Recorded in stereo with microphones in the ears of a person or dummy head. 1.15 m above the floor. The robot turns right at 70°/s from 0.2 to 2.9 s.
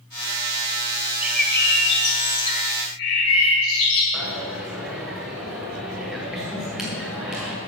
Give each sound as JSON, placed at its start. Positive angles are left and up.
{"t": 1.2, "sound": "a bird", "azimuth_deg": -10, "distance_m": 1.8}
{"t": 4.1, "sound": "a dropped coin", "side_deg": -5, "distance_m": 1.5}